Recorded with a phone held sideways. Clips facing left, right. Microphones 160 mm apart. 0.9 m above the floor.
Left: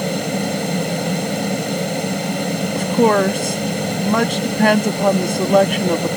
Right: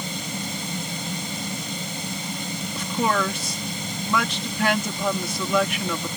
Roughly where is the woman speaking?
Left.